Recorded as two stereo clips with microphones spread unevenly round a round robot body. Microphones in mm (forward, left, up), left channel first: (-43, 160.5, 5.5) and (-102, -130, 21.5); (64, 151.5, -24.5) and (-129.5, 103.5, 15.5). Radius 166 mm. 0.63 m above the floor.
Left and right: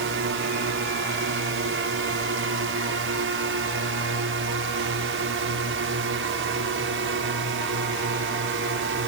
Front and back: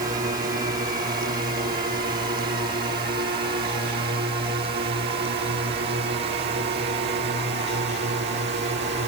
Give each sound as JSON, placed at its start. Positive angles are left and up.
{"t": 0.0, "sound": "a drone", "azimuth_deg": -120}